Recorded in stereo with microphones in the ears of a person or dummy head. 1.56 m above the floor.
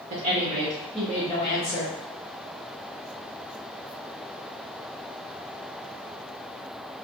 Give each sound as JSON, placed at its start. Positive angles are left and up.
{"t": 0.1, "sound": "a woman speaking", "side_deg": -40, "distance_m": 0.7}